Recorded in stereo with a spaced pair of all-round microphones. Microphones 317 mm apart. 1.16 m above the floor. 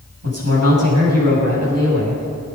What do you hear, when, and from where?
0.2 s a man speaking: 50° right (ahead or behind), 7.5 m